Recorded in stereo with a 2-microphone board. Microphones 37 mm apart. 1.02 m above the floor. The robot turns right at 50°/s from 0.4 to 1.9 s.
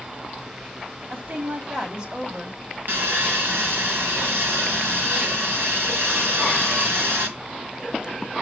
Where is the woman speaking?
70° right, 2 m; by 2.6 s 30° right, 2 m.